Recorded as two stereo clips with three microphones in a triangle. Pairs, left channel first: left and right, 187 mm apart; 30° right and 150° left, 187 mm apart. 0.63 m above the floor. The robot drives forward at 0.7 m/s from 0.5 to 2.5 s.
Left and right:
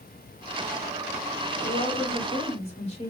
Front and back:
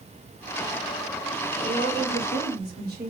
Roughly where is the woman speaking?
Behind left.